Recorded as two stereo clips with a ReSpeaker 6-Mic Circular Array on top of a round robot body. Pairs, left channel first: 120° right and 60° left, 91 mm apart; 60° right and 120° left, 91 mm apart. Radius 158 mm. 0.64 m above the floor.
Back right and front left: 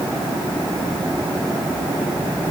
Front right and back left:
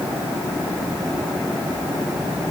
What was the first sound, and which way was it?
Only background noise.